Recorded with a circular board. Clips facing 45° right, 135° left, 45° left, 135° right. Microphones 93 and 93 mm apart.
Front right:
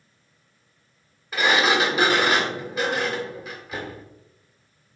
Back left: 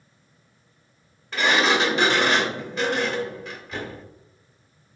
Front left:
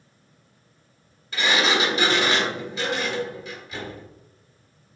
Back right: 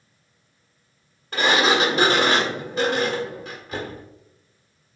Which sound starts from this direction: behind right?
A sliding door, at 1.3 s.